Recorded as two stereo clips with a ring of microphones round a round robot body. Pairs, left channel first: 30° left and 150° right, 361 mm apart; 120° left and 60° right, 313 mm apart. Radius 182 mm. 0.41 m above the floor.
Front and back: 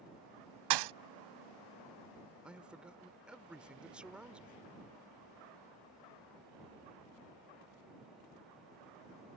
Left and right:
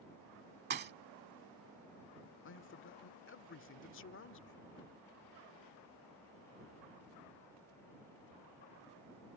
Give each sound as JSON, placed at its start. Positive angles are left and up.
{"t": 0.7, "sound": "a thud", "azimuth_deg": -125}
{"t": 2.4, "sound": "a man speaking", "azimuth_deg": 125}